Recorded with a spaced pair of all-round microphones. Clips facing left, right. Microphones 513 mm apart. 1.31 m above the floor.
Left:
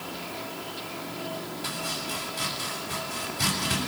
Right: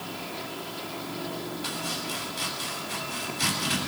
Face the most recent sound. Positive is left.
turn(degrees=70)  # may be behind; listen again after turning